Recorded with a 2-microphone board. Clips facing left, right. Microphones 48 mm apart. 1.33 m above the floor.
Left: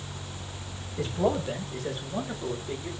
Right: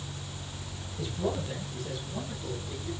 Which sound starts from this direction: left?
A man speaking, at 1.0 s.